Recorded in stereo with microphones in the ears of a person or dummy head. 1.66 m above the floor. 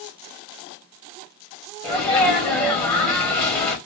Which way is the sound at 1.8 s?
5° left (ahead or behind).